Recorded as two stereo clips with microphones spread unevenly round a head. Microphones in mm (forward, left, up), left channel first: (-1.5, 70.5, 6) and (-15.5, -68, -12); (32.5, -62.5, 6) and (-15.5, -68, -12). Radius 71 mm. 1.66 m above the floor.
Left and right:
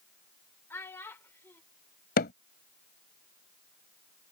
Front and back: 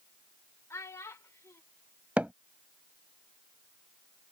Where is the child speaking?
10° left.